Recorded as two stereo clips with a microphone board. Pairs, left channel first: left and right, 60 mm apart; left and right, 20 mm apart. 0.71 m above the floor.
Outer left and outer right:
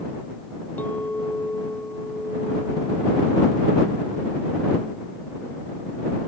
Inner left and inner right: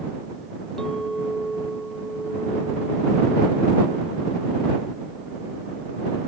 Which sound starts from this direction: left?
A clink, at 0.8 s.